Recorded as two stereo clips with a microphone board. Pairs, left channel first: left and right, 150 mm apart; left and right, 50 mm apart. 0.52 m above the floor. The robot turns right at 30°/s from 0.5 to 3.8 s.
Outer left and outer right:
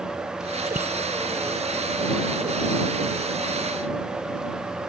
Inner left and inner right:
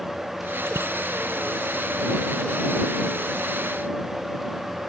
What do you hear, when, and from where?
0.7 s a bicycle bell: 75° right (ahead or behind); by 0.9 s 70° right (ahead or behind)